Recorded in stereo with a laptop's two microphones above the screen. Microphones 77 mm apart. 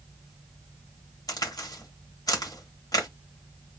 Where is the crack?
55° left (ahead or behind), 1.3 m.